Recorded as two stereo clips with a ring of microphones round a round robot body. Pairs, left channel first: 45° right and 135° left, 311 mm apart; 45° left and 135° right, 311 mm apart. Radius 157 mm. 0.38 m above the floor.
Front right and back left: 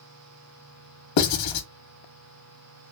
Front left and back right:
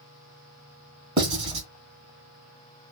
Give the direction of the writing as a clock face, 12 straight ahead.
2 o'clock.